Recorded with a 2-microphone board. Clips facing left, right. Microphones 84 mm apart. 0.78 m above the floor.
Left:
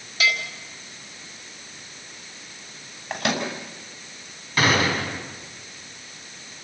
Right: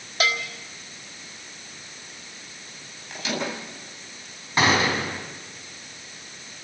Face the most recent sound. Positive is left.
turn(degrees=-25)  # may be behind; listen again after turning